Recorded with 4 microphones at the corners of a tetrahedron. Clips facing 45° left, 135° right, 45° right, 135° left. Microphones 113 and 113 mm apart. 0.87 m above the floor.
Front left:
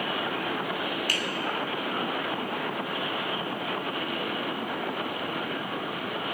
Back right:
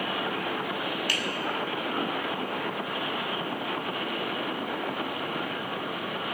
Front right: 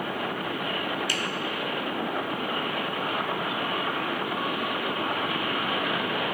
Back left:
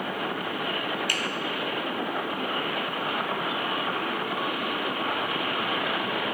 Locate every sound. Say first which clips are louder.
1.1 s a finger snap: even, even; 95° left, 0.9 m